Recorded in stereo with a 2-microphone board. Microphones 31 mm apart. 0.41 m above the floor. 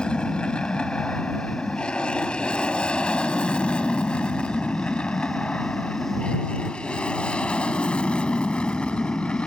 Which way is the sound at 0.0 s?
30° left (ahead or behind).